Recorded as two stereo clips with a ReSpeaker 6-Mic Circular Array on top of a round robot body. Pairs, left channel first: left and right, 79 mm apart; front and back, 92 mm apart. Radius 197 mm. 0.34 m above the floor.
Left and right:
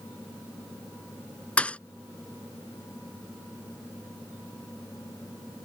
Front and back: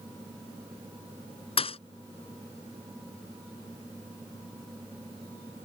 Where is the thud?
15° left.